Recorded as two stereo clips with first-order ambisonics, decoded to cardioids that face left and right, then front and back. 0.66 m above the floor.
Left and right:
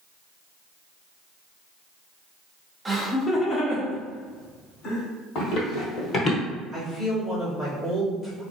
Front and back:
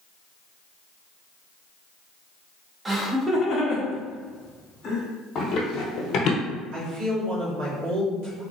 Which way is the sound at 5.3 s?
55° left.